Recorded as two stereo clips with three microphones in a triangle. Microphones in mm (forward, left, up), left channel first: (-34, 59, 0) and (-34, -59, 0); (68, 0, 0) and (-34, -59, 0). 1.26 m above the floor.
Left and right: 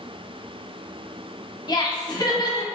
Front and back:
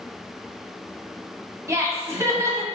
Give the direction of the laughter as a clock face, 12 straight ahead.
7 o'clock.